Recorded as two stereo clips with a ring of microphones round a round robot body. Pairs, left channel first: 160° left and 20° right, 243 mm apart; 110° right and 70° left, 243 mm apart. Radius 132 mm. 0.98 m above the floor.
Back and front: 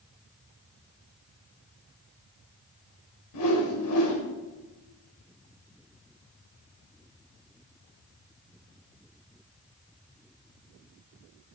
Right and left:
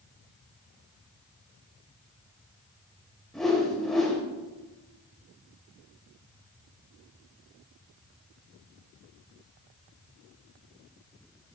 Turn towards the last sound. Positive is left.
turn(degrees=160)